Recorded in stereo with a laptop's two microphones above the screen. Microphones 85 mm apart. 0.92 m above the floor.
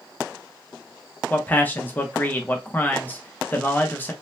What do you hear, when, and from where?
1.3 s a man speaking: 20° left (ahead or behind), 0.8 m